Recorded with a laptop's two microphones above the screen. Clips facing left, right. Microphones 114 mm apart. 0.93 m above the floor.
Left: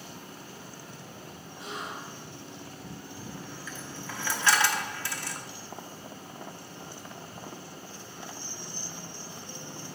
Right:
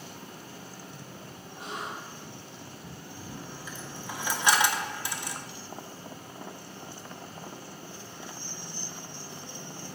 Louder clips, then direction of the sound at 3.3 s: Even; 15° right (ahead or behind).